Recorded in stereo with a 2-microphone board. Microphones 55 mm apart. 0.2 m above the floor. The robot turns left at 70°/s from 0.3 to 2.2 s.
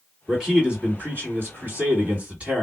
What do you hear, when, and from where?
0.3 s a man speaking: straight ahead, 1.9 m; by 2.6 s 135° right, 1.9 m